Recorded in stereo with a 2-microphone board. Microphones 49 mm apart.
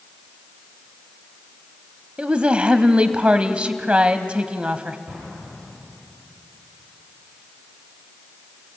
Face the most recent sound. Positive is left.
turn(degrees=-35)  # may be behind; listen again after turning